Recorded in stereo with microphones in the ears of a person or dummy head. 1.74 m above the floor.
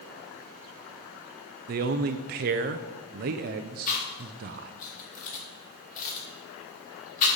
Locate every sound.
1.7 s a man speaking: 45° right (ahead or behind), 0.6 m
3.9 s chewing: 40° left (ahead or behind), 2.5 m